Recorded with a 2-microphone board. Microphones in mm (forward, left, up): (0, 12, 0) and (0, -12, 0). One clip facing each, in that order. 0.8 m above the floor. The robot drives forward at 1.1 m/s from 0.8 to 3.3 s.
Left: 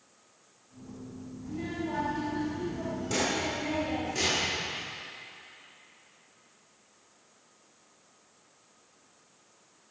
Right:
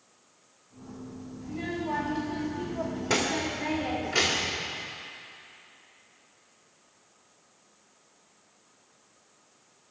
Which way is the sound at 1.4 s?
30° right (ahead or behind).